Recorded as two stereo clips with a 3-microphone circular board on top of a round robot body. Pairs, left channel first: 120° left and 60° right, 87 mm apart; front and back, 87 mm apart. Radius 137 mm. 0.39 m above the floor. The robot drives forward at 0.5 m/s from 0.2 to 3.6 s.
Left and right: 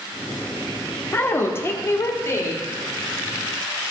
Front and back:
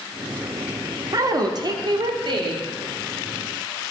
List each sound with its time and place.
1.1 s a woman speaking: 170° left, 1.1 m; by 2.7 s 175° left, 1.7 m